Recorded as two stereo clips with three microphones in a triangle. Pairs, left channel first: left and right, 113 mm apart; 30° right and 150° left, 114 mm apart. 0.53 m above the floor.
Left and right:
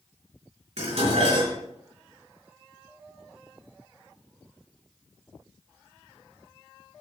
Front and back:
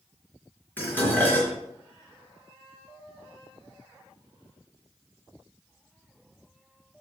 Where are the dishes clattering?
105° right, 4 m.